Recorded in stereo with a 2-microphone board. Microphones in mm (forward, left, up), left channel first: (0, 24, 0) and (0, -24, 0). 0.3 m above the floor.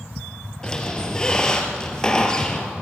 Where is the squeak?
20° left (ahead or behind), 2 m.